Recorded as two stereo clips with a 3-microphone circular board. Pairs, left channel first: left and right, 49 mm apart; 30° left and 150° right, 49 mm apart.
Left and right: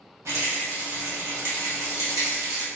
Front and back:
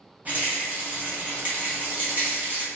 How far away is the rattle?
About 1.0 m.